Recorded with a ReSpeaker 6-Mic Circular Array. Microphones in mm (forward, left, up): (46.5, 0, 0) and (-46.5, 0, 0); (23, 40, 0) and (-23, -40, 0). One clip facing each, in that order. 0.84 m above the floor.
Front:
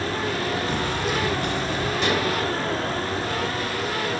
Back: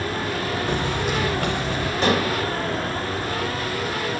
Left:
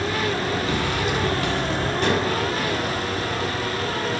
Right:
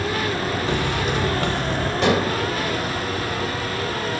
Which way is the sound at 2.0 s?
125° right.